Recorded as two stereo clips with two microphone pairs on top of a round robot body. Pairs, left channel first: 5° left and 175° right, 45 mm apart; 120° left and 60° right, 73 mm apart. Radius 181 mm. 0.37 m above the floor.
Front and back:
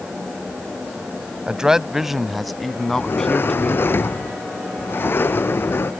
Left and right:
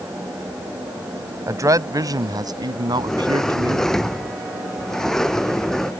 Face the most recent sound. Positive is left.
turn(degrees=40)